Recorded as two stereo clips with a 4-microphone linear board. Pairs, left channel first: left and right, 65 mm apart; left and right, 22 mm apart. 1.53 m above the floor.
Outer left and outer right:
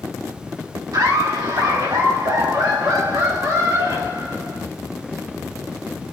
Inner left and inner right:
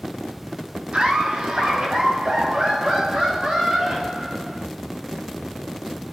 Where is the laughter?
75° right (ahead or behind), 1.9 m; by 4.6 s 80° right, 5.5 m.